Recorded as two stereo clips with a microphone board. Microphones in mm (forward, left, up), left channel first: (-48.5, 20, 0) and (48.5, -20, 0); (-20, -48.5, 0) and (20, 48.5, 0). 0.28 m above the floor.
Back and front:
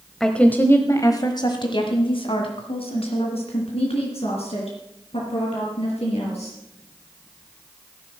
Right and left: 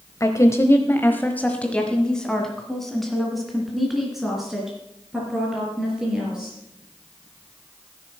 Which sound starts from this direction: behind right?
A woman speaking, at 0.2 s.